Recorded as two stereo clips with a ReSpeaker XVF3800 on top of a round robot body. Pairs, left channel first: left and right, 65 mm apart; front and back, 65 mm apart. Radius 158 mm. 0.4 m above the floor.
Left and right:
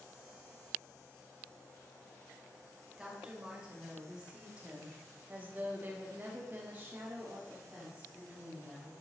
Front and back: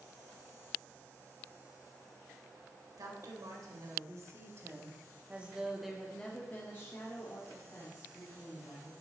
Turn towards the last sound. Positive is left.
turn(degrees=-20)